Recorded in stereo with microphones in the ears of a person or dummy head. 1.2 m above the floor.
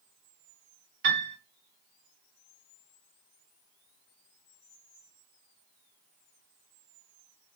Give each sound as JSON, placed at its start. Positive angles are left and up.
{"t": 1.0, "sound": "a piano", "side_deg": -45, "distance_m": 0.8}